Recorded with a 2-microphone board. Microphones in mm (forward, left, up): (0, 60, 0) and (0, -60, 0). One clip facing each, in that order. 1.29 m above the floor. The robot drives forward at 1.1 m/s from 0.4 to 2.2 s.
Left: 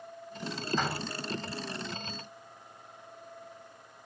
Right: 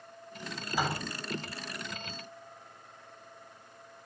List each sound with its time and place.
0.7 s a door slam: 10° right (ahead or behind), 6.5 m